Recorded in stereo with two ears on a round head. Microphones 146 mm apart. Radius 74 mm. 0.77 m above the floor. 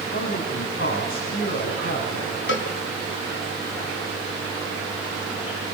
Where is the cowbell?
75° left (ahead or behind), 1.8 m.